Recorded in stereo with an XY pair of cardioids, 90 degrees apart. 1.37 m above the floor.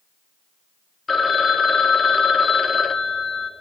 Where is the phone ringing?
40° left, 0.7 m.